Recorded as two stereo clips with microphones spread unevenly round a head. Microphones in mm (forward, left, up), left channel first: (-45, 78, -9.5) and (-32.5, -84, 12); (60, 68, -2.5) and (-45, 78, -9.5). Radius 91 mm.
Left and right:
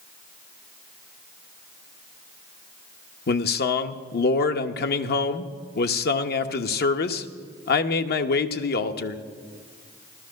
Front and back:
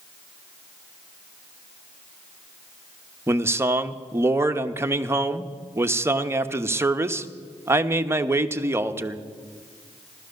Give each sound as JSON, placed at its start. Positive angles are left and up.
{"t": 3.3, "sound": "a man speaking", "azimuth_deg": 110, "distance_m": 1.0}